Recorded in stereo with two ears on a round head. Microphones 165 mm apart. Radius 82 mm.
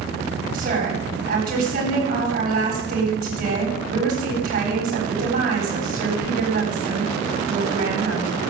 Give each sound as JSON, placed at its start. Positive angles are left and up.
{"t": 0.5, "sound": "a woman speaking", "side_deg": -55, "distance_m": 8.5}